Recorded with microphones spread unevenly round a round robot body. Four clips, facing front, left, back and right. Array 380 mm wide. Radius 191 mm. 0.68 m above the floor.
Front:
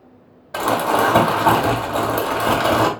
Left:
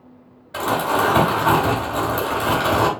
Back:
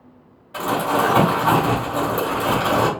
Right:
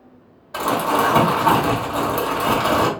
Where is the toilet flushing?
No toilet flushing in this recording.